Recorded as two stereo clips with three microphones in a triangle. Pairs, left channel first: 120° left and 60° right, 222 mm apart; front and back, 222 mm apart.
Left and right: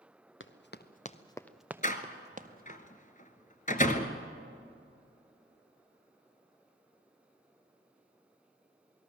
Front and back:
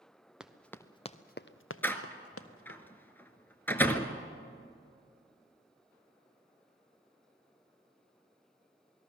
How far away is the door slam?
About 1.4 m.